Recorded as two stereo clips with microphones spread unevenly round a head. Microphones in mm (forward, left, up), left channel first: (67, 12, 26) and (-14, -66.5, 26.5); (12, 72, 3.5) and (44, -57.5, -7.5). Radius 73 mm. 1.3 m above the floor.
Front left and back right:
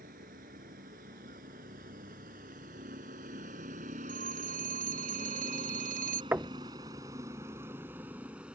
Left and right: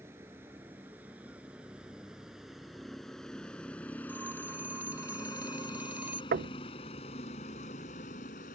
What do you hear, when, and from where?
0.0 s a vehicle: 155° right; by 8.6 s 140° left
4.1 s a phone ringing: 155° right
6.3 s knocking: 60° right